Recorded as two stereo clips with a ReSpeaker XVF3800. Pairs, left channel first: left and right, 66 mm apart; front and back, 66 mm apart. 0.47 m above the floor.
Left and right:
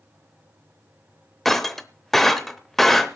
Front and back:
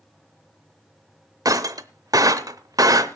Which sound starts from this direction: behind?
Breaking glass, at 1.4 s.